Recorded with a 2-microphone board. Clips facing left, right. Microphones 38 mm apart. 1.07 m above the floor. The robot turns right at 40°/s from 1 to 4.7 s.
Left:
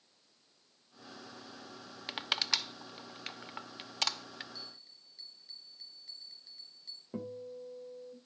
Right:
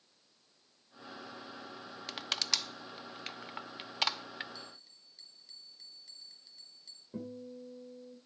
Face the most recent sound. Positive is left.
turn(degrees=55)  # may be behind; listen again after turning